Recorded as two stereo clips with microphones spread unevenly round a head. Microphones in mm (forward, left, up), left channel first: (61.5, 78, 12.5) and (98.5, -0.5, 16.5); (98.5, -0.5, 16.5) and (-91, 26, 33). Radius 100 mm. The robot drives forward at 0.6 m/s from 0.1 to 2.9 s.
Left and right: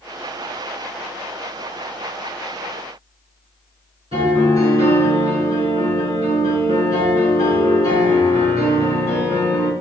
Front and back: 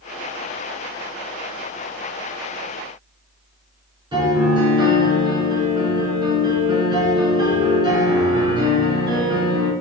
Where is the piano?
120° right, 6 m.